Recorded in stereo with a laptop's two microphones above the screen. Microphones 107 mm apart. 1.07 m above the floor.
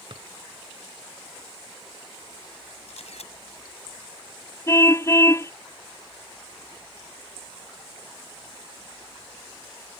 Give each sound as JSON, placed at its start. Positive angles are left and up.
{"t": 0.1, "sound": "a drawer", "side_deg": -55}
{"t": 2.9, "sound": "a camera shutter", "side_deg": 80}
{"t": 4.7, "sound": "a car horn", "side_deg": 25}